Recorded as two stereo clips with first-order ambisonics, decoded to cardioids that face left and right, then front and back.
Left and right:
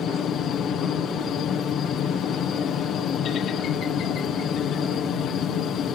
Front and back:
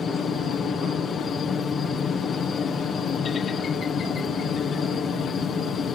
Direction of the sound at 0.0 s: 55° left.